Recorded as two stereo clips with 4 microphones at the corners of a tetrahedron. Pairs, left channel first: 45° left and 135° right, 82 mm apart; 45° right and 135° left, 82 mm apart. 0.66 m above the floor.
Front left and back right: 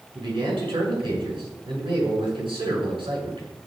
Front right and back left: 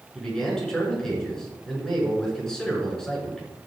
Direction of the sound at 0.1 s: 130° right.